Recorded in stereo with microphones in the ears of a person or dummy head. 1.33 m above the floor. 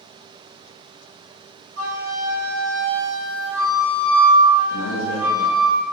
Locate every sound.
1.8 s a flute: 65° right (ahead or behind), 1.8 m
4.7 s a man speaking: 65° left (ahead or behind), 0.7 m